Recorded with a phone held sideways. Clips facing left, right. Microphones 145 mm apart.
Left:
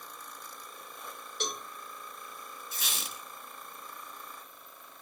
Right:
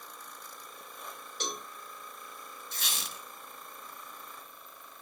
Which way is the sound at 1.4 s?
Centre (ahead or behind).